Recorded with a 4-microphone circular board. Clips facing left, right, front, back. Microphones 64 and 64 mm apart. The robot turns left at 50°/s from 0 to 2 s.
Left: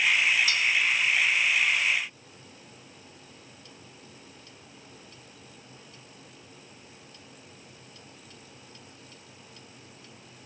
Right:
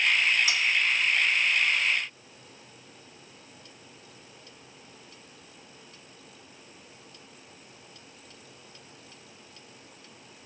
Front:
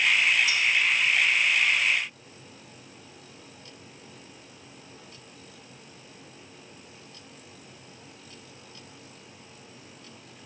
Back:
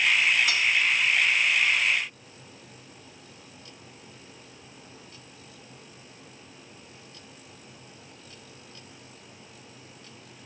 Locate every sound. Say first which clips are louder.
0.5 s cutlery clinking: even, even; 160° right, 1.7 m; by 0.6 s 165° right, 1.7 m